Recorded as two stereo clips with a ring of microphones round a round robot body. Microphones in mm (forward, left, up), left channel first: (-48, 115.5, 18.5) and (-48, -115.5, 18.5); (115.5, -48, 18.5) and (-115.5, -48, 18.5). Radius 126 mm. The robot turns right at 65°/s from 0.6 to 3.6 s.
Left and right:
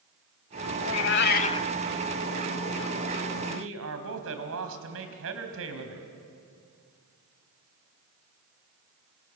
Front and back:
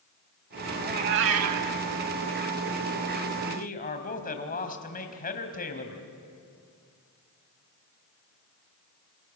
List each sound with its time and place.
0.8 s a cat meowing: 105° left, 0.8 m; by 1.7 s 165° left, 0.8 m
3.5 s a man speaking: 60° right, 3.5 m; by 6.1 s 50° right, 3.5 m